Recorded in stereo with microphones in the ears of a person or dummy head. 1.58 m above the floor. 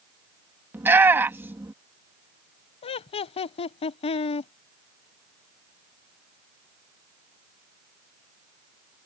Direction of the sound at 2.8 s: 30° left (ahead or behind).